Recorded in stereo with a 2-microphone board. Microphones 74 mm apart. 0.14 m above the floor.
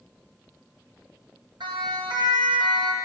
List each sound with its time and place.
1.6 s a siren: 75° right (ahead or behind), 8.5 m